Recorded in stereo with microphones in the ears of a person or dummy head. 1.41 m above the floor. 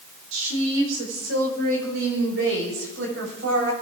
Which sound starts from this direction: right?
A woman speaking, at 0.3 s.